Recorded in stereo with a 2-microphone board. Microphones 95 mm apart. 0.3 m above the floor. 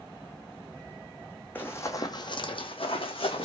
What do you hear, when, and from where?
1.6 s running footsteps: 20° left (ahead or behind), 0.7 m; by 3.5 s 70° left (ahead or behind), 1.0 m